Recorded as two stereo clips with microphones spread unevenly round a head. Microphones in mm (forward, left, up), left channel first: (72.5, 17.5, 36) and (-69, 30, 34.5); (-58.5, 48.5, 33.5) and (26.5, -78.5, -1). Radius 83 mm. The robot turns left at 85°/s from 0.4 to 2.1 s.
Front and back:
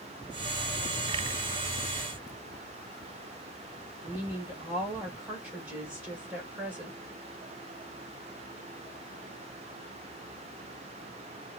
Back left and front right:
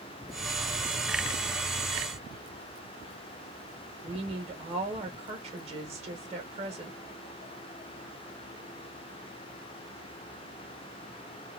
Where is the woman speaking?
105° right, 1.8 m.